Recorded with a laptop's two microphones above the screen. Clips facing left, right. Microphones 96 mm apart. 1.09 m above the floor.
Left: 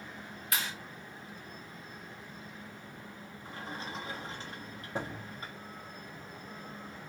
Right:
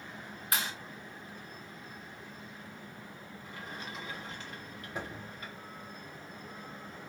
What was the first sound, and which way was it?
A clap, 40° right (ahead or behind).